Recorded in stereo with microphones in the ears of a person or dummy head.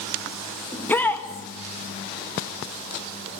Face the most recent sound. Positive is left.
turn(degrees=10)  # may be behind; listen again after turning